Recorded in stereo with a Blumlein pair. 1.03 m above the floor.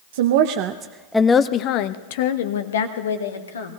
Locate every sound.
0.1 s a woman speaking: 60° right, 0.8 m; by 3.8 s 70° left, 2 m